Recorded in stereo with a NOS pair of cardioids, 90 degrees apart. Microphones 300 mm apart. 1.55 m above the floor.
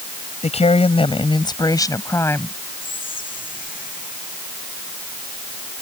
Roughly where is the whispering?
Ahead left.